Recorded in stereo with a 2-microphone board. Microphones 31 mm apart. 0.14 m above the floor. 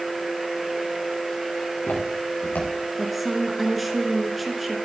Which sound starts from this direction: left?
Footsteps, at 1.6 s.